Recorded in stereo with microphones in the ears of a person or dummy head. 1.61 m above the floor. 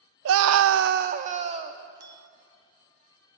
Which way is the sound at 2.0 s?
20° right (ahead or behind).